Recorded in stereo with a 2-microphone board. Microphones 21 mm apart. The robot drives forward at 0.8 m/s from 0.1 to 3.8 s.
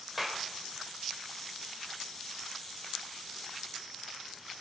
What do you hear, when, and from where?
0.2 s a clap: 10° right (ahead or behind), 2.5 m